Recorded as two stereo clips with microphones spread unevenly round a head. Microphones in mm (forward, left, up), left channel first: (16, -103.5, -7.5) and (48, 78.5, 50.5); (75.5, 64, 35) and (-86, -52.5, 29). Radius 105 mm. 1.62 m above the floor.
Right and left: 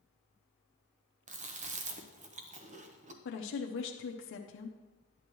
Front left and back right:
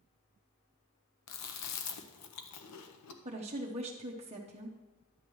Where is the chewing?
30° left, 0.9 m.